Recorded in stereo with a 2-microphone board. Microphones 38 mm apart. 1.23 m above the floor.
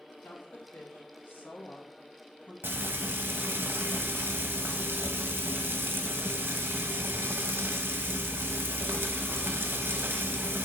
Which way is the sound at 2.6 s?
75° right (ahead or behind).